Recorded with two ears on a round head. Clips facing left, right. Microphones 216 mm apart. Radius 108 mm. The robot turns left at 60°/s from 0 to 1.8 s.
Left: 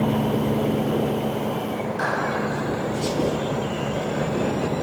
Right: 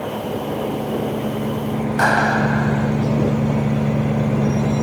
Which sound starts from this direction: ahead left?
An engine running, at 0.0 s.